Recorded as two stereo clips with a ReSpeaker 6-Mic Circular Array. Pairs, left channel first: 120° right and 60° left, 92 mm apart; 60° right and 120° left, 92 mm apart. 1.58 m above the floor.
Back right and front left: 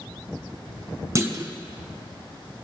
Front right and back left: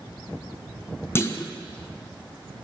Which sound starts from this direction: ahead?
A clunk, at 1.1 s.